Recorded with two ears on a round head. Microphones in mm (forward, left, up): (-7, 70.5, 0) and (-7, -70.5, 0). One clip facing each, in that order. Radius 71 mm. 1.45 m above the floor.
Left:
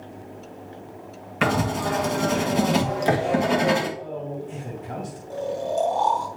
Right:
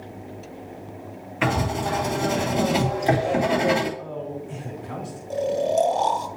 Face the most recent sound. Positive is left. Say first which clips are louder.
# right 5 dB
turn(degrees=-25)  # may be behind; listen again after turning